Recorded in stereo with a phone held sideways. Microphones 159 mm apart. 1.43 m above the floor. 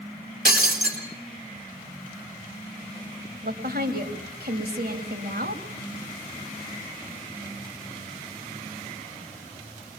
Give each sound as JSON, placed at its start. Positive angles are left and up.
{"t": 0.5, "sound": "breaking glass", "side_deg": -70, "distance_m": 4.0}
{"t": 3.4, "sound": "a woman speaking", "side_deg": -80, "distance_m": 3.0}